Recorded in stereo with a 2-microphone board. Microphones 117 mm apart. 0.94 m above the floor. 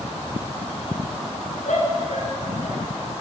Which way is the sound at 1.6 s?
85° left.